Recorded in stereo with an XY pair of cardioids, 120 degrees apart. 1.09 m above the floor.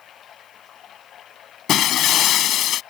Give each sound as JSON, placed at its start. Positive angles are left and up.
{"t": 0.0, "sound": "running water", "azimuth_deg": 55}
{"t": 1.7, "sound": "breaking glass", "azimuth_deg": 65}